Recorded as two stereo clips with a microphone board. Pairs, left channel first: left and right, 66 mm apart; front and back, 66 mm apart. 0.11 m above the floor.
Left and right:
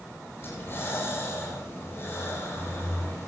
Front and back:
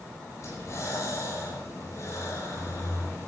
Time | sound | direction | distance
0.4 | breathing | 40° left | 6.5 m